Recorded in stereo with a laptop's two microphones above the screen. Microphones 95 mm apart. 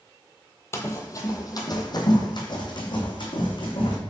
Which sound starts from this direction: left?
Running footsteps, at 0.7 s.